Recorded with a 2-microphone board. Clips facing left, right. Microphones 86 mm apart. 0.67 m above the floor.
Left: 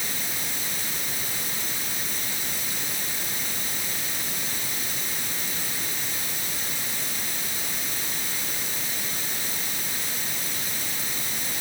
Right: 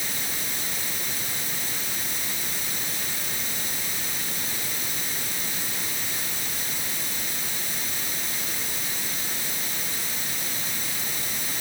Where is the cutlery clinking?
I don't hear cutlery clinking.